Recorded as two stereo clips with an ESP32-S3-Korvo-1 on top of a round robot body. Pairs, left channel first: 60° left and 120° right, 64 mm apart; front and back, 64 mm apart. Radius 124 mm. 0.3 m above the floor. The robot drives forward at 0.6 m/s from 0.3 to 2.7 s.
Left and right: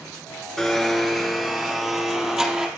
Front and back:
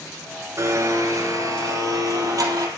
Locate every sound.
0.6 s a blender: 145° left, 2 m; by 2.7 s 160° left, 3 m